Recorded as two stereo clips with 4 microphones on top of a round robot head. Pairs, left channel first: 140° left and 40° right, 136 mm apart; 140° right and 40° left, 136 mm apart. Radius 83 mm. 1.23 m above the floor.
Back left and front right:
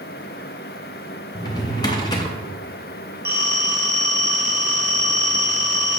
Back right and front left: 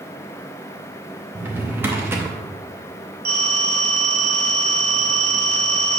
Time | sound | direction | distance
1.4 | a drawer | 105° left | 0.6 m
3.2 | a phone ringing | 35° left | 2 m